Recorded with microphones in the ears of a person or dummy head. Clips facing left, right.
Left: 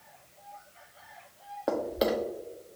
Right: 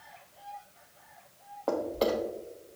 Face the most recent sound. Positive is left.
turn(degrees=15)  # may be behind; listen again after turning